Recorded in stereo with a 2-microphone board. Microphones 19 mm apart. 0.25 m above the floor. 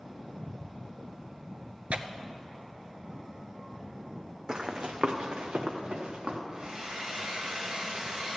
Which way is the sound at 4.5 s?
35° right (ahead or behind).